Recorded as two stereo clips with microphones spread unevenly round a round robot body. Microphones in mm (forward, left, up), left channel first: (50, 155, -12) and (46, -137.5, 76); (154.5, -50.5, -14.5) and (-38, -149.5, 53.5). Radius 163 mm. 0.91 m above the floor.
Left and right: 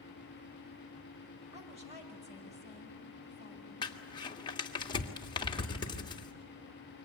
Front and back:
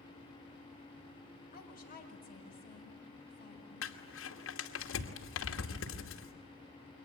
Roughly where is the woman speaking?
Ahead.